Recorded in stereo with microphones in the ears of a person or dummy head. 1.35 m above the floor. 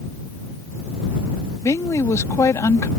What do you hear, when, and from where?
1.6 s a woman speaking: 20° left (ahead or behind)